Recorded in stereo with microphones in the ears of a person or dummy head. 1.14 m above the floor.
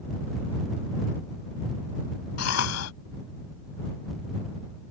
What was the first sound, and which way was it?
A cough, 85° left.